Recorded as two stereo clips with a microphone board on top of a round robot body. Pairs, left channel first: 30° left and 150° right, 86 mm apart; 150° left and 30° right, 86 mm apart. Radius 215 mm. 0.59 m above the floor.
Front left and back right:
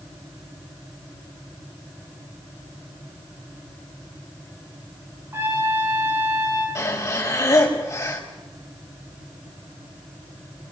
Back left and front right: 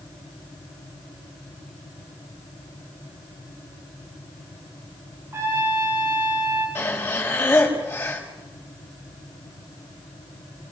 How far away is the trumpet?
About 9 m.